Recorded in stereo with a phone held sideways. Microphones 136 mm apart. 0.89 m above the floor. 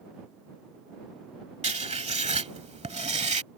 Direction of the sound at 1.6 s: 55° right (ahead or behind).